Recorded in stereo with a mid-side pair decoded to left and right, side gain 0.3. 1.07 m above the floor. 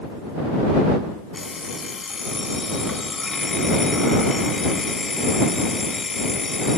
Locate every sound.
1.3 s an alarm clock: 45° left